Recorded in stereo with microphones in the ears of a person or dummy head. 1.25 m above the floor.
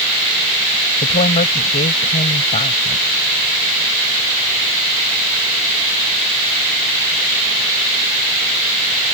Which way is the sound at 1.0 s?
40° left (ahead or behind).